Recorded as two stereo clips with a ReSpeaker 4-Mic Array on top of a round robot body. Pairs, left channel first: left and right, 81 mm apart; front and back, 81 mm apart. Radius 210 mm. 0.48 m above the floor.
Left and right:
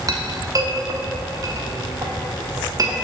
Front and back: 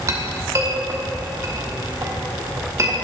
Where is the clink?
130° right, 1.3 m.